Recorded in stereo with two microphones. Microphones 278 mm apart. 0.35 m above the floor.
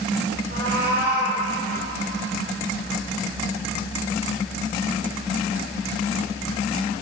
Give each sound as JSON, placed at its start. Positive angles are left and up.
{"t": 0.5, "sound": "a cat meowing", "side_deg": -40, "distance_m": 2.5}